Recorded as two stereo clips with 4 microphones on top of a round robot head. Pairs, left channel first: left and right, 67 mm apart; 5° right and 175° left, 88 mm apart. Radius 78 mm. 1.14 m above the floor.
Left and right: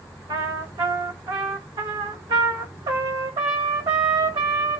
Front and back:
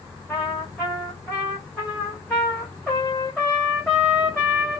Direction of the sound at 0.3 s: 90° right.